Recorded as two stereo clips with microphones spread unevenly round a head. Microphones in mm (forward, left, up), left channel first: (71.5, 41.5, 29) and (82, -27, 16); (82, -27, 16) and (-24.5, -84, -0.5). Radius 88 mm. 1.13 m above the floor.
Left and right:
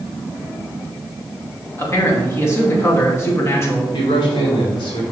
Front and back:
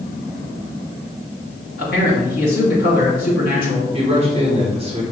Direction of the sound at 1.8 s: 45° left.